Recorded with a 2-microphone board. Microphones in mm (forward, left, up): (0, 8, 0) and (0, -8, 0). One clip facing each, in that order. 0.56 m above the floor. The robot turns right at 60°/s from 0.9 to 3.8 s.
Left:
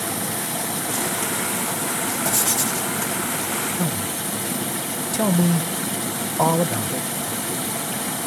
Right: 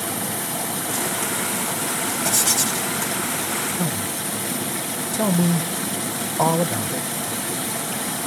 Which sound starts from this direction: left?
A man speaking, at 3.8 s.